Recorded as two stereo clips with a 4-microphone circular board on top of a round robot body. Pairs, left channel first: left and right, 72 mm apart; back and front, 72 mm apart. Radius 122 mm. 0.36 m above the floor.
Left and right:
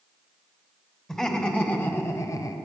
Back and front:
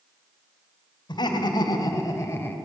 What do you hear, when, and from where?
1.1 s laughter: 170° left, 2.5 m; by 2.6 s 120° left, 1.9 m